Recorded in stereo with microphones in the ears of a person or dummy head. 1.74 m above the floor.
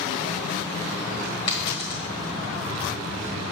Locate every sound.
1.5 s a dropped coin: 30° left (ahead or behind), 1.7 m